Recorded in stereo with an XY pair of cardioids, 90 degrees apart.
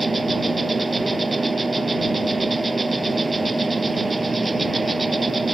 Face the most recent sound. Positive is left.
turn(degrees=-30)